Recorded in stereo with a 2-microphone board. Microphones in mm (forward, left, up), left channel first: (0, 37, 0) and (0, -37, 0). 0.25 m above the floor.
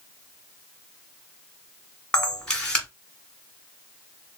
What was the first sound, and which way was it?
A camera shutter, 10° left (ahead or behind).